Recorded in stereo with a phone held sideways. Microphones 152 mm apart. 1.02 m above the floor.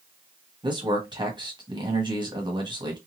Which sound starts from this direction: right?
A man speaking, at 0.6 s.